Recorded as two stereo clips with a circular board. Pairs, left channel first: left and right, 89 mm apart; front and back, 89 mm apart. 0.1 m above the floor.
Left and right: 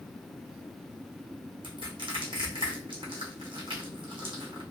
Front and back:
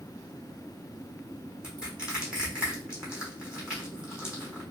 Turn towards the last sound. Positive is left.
turn(degrees=-100)